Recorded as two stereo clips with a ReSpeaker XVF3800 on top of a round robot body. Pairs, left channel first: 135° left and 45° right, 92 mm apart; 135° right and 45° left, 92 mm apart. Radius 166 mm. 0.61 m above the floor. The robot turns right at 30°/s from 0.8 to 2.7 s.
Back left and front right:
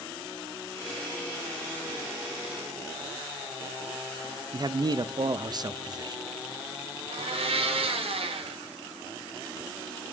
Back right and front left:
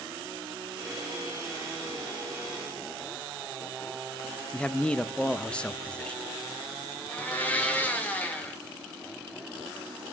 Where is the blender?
60° right, 2 m.